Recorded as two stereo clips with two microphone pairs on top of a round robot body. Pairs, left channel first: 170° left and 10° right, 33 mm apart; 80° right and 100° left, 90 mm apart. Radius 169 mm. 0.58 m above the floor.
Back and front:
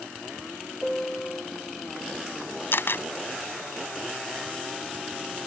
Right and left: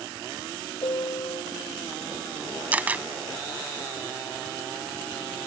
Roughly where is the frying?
No frying in this recording.